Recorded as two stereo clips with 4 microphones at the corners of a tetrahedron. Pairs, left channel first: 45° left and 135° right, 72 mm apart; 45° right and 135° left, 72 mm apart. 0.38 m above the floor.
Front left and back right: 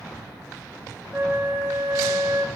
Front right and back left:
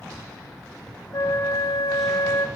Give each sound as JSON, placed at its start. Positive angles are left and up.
{"t": 1.1, "sound": "a flute", "azimuth_deg": -75, "distance_m": 0.5}